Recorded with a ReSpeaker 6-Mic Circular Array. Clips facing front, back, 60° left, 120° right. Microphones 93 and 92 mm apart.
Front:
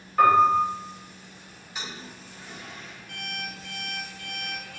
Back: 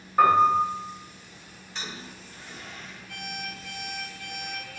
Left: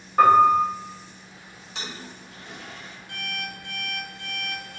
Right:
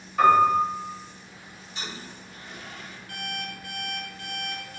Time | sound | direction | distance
0.2 | a piano | 105° left | 1.8 m
1.8 | a toilet flushing | 80° left | 0.9 m
3.1 | an alarm clock | 5° right | 0.9 m